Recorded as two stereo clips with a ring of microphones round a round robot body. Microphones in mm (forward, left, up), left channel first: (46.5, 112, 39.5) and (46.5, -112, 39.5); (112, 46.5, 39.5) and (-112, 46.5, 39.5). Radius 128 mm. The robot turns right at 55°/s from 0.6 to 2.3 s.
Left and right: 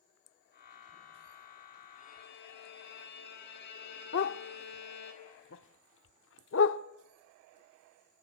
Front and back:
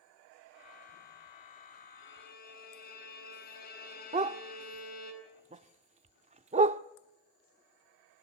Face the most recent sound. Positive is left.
turn(degrees=125)